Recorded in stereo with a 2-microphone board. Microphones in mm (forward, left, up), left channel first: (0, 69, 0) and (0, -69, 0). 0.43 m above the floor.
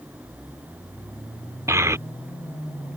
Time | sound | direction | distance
1.7 | a child speaking | 20° right (ahead or behind) | ?